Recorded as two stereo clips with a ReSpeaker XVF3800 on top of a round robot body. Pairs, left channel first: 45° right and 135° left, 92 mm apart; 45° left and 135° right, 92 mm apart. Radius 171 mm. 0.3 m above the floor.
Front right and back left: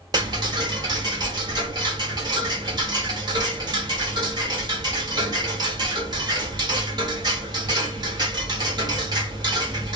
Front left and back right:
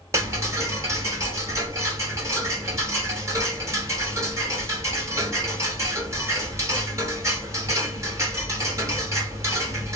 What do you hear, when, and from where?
0.1 s ticking: 170° left, 1.7 m